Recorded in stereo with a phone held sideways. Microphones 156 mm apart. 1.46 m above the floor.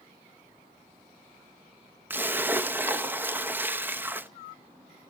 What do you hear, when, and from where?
2.1 s a splash: 15° right (ahead or behind), 0.7 m